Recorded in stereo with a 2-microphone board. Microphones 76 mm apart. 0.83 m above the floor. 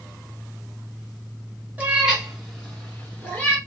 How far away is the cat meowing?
About 0.8 m.